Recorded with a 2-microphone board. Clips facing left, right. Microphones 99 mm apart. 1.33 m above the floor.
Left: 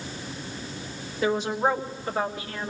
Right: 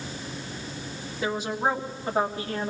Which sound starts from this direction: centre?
A woman speaking, at 1.2 s.